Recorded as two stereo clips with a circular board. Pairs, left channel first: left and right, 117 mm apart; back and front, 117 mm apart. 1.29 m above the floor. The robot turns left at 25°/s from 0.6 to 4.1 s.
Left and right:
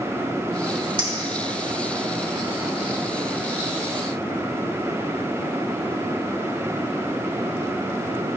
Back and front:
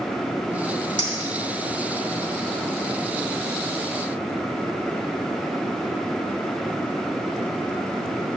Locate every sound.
1.0 s a clink: 135° right, 2 m; by 2.1 s 165° right, 2 m